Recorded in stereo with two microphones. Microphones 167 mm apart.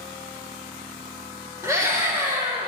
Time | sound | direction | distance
1.6 | a scream | 20° right (ahead or behind) | 6.5 m